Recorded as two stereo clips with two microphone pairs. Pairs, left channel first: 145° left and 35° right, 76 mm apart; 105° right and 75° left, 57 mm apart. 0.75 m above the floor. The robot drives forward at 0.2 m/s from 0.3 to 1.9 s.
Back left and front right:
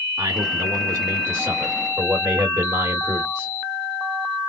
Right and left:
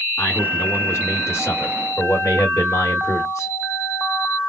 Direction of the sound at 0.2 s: 65° right.